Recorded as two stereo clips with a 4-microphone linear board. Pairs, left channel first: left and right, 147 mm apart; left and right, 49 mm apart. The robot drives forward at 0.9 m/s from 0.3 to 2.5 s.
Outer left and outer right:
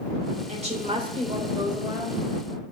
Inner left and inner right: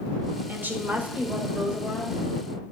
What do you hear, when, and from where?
0.5 s a woman speaking: 45° right (ahead or behind), 1.4 m; by 2.5 s 20° right (ahead or behind), 2.5 m